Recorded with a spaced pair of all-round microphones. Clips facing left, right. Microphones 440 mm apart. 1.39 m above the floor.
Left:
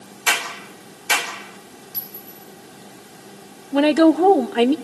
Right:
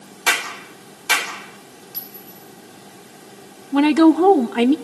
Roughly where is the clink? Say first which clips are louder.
Even; left.